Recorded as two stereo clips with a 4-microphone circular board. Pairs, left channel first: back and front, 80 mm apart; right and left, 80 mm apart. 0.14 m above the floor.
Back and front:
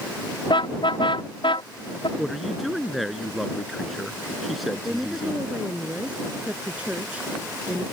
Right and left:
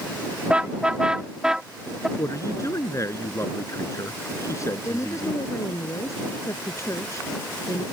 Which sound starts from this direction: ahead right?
A woman speaking, at 4.8 s.